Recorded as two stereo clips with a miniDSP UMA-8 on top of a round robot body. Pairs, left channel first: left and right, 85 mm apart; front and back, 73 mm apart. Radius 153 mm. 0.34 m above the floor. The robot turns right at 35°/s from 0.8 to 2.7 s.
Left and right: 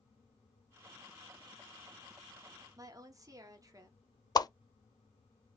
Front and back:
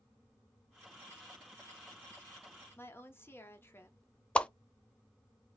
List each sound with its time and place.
2.8 s a woman speaking: 55° right, 1.4 m
4.3 s a whoosh: 70° left, 0.6 m